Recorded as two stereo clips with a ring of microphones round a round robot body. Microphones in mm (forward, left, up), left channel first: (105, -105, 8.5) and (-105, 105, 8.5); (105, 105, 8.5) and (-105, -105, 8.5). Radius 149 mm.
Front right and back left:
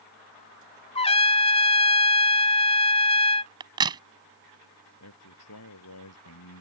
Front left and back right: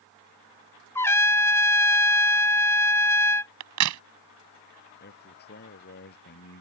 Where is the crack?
150° right.